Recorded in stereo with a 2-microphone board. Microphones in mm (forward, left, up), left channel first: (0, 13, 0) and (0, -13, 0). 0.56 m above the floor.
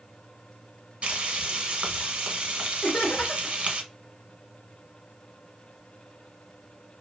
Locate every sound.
1.0 s frying: 55° right (ahead or behind), 0.7 m
2.8 s laughter: 35° left (ahead or behind), 0.9 m